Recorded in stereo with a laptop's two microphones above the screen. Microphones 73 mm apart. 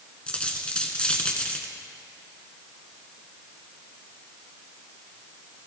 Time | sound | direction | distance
0.3 | a dropped coin | 15° left (ahead or behind) | 1.2 m